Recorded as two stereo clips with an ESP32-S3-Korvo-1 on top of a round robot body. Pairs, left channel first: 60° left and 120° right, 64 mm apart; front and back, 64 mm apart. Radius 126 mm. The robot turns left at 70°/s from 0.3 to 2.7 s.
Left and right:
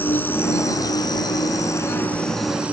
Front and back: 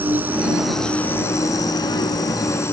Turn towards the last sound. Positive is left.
turn(degrees=-50)